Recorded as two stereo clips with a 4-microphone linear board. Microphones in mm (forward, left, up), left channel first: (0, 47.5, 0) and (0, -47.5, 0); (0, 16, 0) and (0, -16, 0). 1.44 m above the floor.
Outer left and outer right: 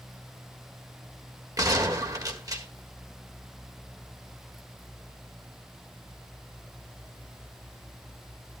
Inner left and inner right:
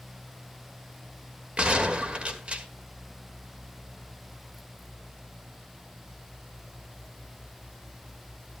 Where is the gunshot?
40° right (ahead or behind), 1.5 m.